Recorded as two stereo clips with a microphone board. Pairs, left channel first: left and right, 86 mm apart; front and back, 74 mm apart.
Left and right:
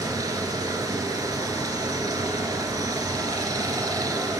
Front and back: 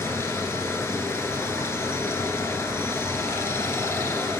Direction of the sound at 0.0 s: 50° right.